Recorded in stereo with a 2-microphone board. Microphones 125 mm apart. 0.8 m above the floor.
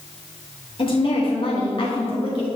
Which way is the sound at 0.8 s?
45° left (ahead or behind).